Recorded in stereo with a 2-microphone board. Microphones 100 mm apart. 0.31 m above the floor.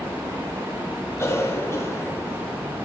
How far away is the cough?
About 1.9 m.